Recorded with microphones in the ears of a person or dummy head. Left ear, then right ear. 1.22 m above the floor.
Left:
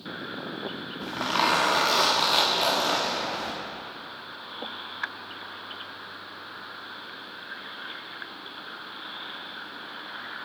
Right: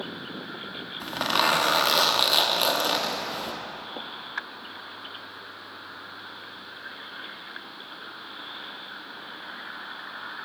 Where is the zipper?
25° right (ahead or behind), 1.2 m.